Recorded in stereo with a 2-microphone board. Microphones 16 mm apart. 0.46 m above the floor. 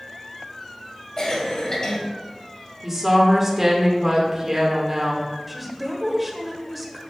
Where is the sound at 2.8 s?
15° right (ahead or behind), 1.5 m.